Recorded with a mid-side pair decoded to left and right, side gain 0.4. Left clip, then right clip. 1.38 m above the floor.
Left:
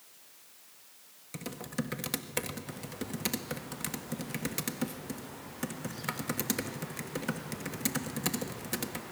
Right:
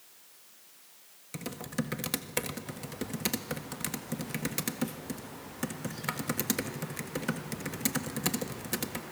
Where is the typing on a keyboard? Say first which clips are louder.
Right 1 dB; 10° right, 1.7 m.